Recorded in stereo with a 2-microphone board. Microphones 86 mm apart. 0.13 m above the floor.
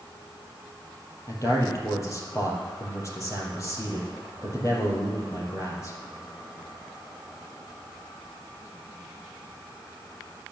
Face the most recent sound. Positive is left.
turn(degrees=40)  # may be behind; listen again after turning